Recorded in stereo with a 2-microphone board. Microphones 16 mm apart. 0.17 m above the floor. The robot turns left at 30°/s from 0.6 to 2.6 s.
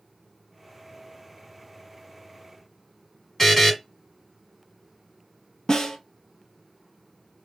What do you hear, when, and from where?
3.4 s a buzzer: 15° left (ahead or behind), 1.2 m
5.7 s a snare drum: 50° left (ahead or behind), 0.7 m